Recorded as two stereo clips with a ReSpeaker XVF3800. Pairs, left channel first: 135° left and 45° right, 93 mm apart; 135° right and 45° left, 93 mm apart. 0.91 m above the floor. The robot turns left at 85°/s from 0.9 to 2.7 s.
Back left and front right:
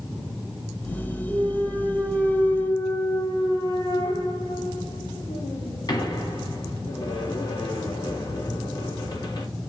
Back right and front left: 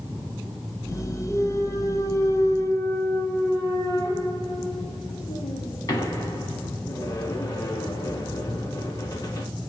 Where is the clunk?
65° right, 1.5 m; by 9.5 s 175° left, 1.5 m.